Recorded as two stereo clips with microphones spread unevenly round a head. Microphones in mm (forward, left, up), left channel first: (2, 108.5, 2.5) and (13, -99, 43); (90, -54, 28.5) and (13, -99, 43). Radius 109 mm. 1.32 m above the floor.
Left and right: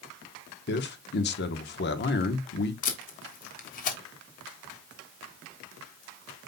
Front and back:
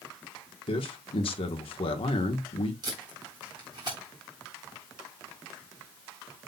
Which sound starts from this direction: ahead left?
A man speaking, at 0.7 s.